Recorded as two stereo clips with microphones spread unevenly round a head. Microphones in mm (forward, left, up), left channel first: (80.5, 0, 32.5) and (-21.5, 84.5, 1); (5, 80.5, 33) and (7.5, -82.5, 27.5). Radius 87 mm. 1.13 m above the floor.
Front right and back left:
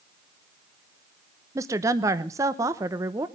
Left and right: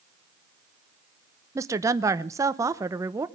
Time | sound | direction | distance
1.6 | a woman speaking | 160° right | 0.8 m